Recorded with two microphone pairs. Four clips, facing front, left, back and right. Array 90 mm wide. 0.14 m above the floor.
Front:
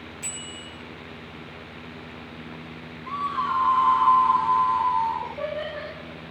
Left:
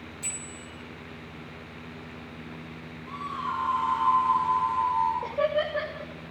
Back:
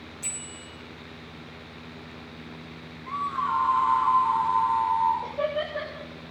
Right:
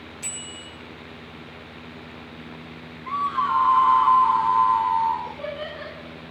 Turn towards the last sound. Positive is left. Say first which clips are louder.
# left 6 dB, back 2 dB
turn(degrees=85)